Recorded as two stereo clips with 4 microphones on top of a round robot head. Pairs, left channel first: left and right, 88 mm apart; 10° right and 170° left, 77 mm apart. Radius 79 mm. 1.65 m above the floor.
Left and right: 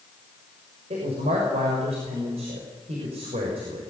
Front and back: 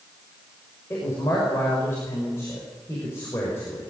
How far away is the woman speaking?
About 6 m.